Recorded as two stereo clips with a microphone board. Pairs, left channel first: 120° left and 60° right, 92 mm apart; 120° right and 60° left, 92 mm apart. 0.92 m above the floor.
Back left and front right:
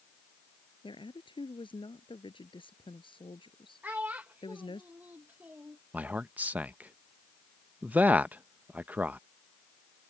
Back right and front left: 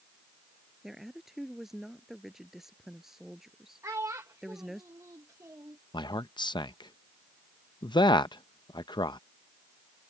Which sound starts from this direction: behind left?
A woman speaking, at 0.8 s.